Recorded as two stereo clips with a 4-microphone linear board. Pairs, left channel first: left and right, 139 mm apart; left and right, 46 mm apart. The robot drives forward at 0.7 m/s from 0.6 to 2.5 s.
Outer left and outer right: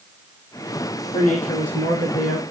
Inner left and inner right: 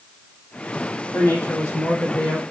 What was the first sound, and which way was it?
A man speaking, 65° left (ahead or behind).